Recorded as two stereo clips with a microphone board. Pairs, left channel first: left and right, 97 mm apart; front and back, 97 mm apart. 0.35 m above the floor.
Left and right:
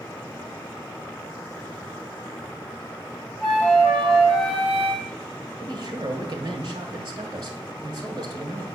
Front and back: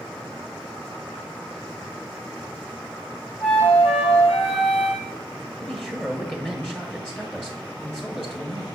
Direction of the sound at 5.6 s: 75° right.